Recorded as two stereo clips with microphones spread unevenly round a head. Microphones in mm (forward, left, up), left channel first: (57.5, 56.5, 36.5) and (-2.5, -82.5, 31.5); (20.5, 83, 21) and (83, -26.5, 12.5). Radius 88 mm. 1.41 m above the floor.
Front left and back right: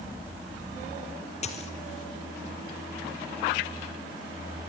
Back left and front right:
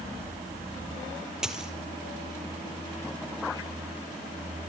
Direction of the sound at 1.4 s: 25° left.